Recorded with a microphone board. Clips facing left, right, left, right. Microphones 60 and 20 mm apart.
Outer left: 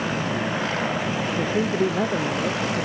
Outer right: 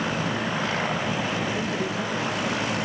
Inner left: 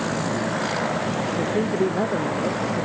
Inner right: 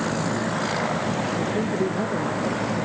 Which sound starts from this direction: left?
A man speaking, at 1.4 s.